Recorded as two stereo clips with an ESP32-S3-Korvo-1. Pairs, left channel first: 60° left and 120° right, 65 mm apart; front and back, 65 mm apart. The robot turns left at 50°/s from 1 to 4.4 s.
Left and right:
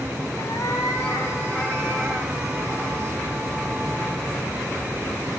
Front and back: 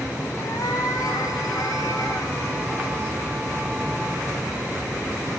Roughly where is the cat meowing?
Ahead left.